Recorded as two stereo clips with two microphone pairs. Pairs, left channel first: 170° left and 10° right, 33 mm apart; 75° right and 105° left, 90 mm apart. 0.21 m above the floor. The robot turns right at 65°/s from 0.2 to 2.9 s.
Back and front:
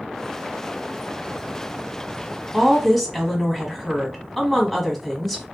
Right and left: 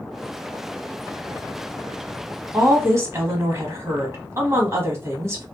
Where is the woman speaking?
60° left, 1.2 m; by 5.4 s 85° left, 1.2 m.